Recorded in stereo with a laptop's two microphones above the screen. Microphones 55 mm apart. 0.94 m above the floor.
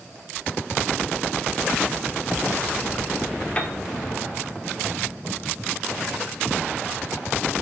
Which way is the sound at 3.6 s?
25° left (ahead or behind).